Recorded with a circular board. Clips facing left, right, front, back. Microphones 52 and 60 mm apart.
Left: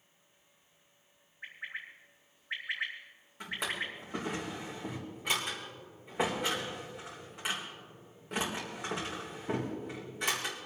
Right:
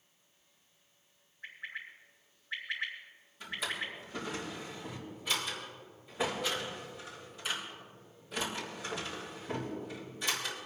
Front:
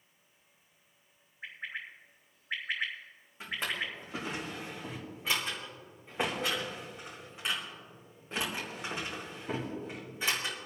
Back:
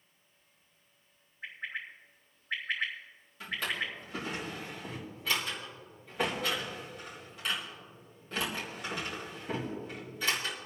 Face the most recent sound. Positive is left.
turn(degrees=65)